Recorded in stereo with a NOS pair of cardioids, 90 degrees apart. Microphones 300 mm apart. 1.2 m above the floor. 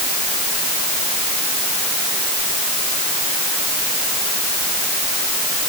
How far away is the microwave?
I don't hear a microwave.